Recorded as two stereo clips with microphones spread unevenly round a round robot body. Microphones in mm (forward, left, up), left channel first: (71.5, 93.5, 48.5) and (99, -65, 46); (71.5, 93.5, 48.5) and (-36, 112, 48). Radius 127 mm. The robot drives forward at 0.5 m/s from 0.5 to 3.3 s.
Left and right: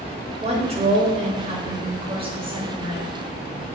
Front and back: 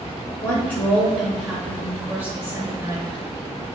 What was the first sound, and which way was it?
A woman speaking, 75° right.